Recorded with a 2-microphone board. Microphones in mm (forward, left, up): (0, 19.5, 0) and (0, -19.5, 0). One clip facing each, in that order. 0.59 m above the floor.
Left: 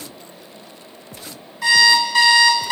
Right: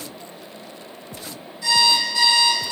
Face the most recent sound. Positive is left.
turn(degrees=85)